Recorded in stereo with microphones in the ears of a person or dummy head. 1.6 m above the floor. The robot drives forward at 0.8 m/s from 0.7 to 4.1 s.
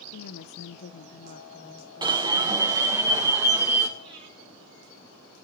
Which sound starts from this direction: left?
A woman speaking, at 0.1 s.